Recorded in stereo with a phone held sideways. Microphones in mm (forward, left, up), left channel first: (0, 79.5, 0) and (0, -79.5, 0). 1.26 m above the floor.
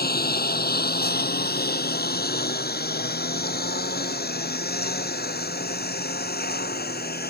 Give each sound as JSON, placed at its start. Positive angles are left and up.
{"t": 0.0, "sound": "a lawn mower", "side_deg": 80}